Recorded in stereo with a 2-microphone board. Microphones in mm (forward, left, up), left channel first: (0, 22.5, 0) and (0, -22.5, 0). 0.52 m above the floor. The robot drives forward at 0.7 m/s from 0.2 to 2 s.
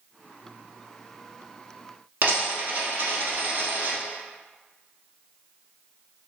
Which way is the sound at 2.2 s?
45° right (ahead or behind).